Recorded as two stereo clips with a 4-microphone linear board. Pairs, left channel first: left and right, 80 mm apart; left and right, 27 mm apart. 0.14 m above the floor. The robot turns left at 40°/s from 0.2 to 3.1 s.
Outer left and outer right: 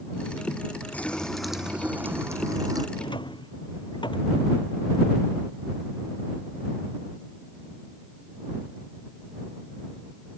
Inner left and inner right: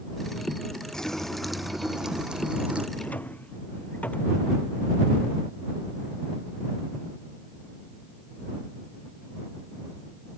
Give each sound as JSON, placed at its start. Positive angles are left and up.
{"t": 0.9, "sound": "a running tap", "azimuth_deg": 20}
{"t": 3.0, "sound": "a drawer", "side_deg": 85}